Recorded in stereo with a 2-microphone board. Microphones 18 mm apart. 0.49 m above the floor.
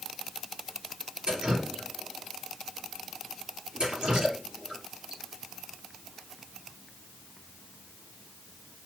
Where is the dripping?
50° right (ahead or behind), 4 m.